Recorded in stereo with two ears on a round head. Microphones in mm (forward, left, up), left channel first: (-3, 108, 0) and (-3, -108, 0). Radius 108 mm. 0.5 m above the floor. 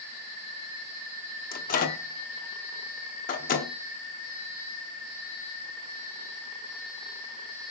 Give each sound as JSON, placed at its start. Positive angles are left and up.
{"t": 1.5, "sound": "a microwave", "side_deg": 35, "distance_m": 0.6}